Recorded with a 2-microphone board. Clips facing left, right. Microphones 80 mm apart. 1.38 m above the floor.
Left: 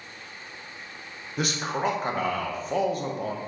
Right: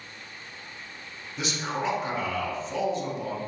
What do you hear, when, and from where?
1.4 s a man speaking: 50° left (ahead or behind), 0.6 m